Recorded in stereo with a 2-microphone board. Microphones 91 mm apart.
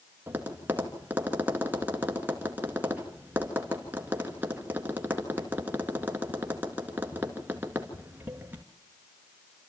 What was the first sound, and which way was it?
Tapping, 20° right (ahead or behind).